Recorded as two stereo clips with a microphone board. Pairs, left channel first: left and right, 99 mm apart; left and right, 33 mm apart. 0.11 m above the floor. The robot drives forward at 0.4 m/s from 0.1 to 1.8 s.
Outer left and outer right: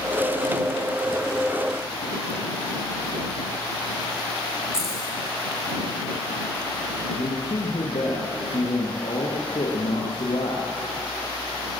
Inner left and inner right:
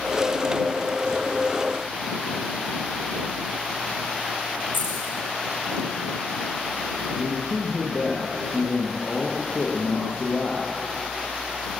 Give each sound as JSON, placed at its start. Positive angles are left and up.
{"t": 4.7, "sound": "keys jangling", "side_deg": 75, "distance_m": 5.5}
{"t": 7.2, "sound": "a man speaking", "side_deg": 65, "distance_m": 3.5}